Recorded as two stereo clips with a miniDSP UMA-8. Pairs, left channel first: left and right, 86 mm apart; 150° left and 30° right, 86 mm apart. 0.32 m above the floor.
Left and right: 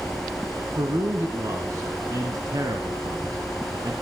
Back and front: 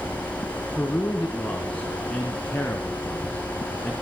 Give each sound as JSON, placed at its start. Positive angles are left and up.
{"t": 0.8, "sound": "a man speaking", "azimuth_deg": -135, "distance_m": 3.0}